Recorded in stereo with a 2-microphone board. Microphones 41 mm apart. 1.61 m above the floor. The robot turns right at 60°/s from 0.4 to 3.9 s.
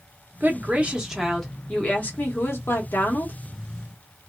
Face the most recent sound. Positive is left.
turn(degrees=150)